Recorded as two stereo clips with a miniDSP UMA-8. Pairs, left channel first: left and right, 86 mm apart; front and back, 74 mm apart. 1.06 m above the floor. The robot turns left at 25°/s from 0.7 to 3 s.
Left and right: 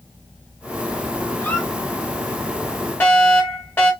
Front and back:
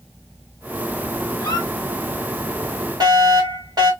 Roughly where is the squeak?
Ahead left.